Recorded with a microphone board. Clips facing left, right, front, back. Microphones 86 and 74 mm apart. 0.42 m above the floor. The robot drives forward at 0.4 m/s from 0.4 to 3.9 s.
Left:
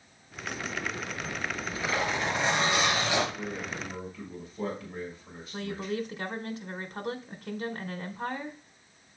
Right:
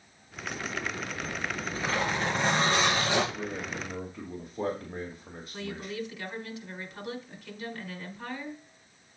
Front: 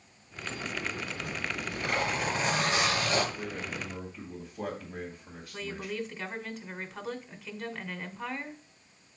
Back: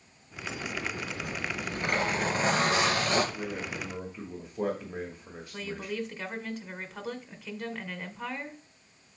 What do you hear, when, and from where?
1.2 s a zipper: 135° right, 5.5 m; by 3.2 s 140° right, 6.5 m
3.4 s a man speaking: 120° right, 1.8 m; by 5.9 s 125° right, 1.9 m
5.5 s a woman speaking: 95° left, 1.2 m